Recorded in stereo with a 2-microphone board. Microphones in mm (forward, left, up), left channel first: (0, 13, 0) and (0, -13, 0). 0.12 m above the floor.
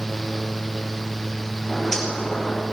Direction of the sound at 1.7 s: 15° left (ahead or behind).